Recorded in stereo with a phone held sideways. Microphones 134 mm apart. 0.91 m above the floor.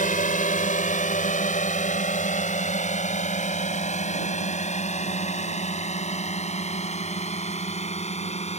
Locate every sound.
0.0 s a drone: 65° left (ahead or behind); by 8.6 s 50° left (ahead or behind)